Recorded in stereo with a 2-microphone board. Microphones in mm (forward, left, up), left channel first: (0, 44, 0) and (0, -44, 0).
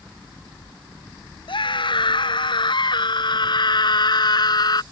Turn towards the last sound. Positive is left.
turn(degrees=55)  # may be behind; listen again after turning